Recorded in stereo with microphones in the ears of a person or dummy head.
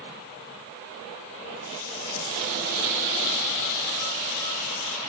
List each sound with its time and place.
1.6 s a running tap: 70° left (ahead or behind), 3.5 m